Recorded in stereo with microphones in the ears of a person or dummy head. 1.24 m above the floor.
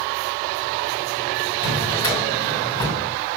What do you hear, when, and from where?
1.6 s a drawer: 25° left (ahead or behind), 2 m